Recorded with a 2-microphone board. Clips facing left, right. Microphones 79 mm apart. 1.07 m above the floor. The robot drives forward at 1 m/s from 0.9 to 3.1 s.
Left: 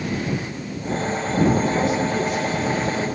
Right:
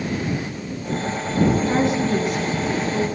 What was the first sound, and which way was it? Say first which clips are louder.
A woman speaking: right 1 dB; 70° right (ahead or behind).